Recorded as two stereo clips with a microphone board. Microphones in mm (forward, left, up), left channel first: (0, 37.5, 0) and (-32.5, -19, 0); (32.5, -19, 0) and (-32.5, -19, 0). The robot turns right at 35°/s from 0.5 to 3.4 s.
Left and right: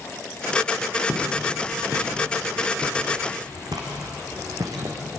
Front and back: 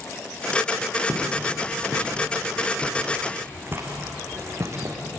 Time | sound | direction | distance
1.1 | footsteps | straight behind | 6.5 m